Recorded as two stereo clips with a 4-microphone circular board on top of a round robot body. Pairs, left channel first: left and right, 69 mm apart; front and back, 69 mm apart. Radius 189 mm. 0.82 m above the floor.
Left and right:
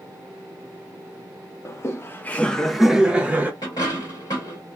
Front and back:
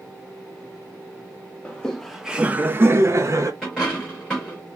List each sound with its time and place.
1.6 s laughter: 70° left, 0.8 m; by 3.5 s 150° right, 0.9 m
3.6 s a dropped coin: 85° left, 0.6 m